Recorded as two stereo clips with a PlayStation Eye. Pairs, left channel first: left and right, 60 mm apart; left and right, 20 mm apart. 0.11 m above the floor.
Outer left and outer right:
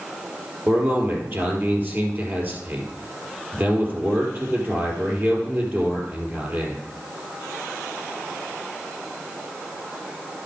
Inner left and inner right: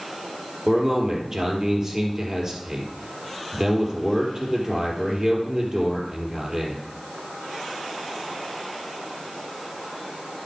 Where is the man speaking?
35° right (ahead or behind), 3 m.